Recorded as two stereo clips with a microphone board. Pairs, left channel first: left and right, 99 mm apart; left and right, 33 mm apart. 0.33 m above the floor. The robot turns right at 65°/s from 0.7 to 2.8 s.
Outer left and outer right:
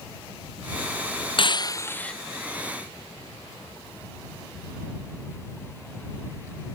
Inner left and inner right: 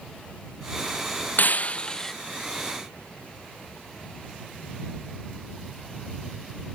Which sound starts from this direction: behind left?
Breaking glass, at 1.4 s.